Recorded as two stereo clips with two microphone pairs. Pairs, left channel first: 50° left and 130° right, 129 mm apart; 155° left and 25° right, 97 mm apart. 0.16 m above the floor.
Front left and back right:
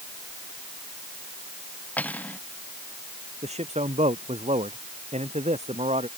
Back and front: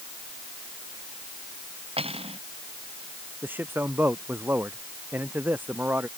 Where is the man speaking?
95° right.